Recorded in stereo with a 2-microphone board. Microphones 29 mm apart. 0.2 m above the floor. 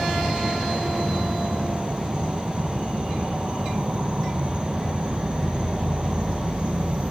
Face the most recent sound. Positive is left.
turn(degrees=-25)  # may be behind; listen again after turning